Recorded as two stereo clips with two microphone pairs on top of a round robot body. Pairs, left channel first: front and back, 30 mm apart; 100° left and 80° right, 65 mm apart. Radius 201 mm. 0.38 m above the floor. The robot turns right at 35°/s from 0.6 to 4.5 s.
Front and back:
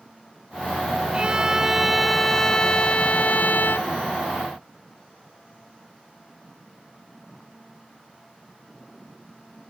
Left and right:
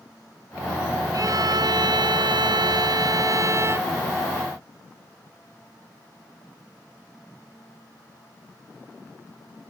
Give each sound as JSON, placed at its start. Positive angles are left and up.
{"t": 1.1, "sound": "a violin", "azimuth_deg": -120}